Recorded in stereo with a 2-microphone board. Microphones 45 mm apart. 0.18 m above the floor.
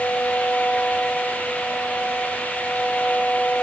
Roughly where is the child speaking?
No child speaking in this recording.